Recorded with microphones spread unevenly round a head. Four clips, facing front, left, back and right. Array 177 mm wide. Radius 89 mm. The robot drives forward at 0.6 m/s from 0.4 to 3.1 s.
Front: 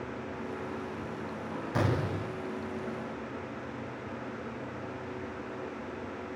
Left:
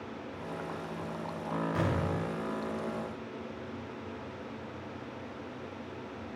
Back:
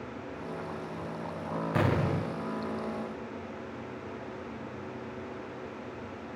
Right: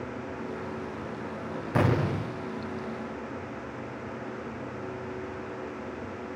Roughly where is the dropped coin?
No dropped coin in this recording.